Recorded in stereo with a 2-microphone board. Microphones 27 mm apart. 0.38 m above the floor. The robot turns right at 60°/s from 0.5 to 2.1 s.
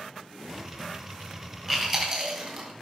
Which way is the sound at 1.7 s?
10° left (ahead or behind).